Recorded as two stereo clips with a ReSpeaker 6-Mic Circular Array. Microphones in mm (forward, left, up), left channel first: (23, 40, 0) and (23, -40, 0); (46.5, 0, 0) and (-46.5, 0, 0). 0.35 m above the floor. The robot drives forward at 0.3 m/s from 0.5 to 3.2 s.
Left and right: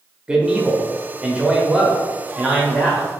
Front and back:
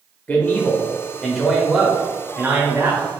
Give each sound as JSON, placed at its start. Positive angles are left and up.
{"t": 0.3, "sound": "a man speaking", "azimuth_deg": -35, "distance_m": 0.9}